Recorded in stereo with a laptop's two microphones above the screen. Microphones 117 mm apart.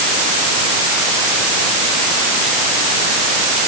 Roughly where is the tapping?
No tapping in this recording.